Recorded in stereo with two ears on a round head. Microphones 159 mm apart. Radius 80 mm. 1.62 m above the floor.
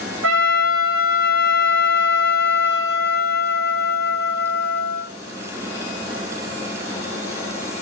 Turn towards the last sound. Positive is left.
turn(degrees=-75)  # may be behind; listen again after turning